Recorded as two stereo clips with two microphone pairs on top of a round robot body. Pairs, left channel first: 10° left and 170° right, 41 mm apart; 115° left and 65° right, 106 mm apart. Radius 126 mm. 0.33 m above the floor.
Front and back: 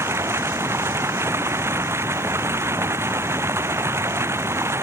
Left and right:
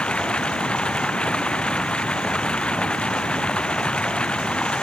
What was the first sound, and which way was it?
Running water, 165° right.